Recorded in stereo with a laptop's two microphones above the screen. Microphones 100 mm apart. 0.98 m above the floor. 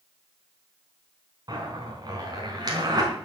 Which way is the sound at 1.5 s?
45° right (ahead or behind).